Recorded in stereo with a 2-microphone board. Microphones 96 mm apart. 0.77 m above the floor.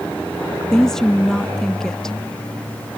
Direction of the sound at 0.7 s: 5° left (ahead or behind).